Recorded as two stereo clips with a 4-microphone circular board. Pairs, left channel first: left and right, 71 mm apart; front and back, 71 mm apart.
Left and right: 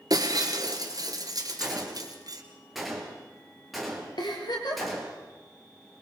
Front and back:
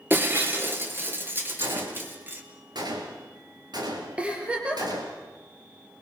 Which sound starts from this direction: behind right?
Breaking glass, at 0.1 s.